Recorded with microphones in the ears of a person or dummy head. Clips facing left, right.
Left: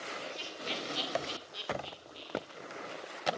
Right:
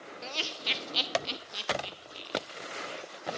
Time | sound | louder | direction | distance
0.2 | laughter | right 2 dB | 85° right | 0.8 m